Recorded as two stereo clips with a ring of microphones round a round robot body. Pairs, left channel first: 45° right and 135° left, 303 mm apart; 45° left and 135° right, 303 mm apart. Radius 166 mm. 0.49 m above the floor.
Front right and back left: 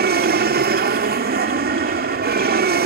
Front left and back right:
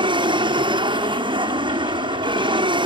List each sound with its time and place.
0.0 s an aircraft: 160° left